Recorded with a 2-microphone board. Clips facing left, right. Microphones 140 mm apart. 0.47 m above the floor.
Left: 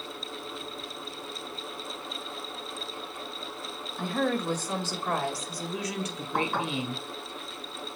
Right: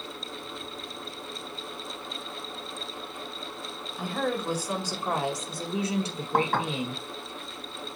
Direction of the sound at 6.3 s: 80° right.